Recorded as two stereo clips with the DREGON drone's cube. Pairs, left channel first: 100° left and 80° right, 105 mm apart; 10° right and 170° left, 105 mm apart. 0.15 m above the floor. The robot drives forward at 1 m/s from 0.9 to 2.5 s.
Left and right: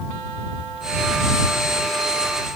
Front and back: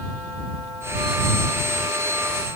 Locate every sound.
Only background noise.